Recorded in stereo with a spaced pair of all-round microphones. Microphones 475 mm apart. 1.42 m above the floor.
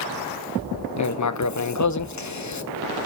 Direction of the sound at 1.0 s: 40° left (ahead or behind).